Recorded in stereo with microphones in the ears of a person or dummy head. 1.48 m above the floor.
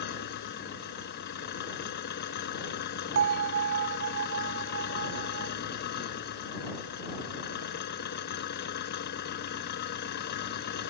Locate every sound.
0.0 s an engine running: 55° left (ahead or behind)
3.1 s a bell: 55° right (ahead or behind)